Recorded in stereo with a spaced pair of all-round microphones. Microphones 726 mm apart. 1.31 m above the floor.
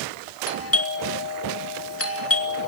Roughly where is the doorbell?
Centre.